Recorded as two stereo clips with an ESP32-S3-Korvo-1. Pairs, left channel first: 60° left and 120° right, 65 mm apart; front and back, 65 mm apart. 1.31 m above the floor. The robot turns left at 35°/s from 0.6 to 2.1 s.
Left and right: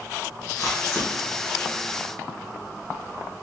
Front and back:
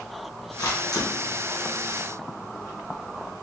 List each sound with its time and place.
0.6 s a camera shutter: 20° left, 1.3 m; by 1.1 s 5° left, 1.3 m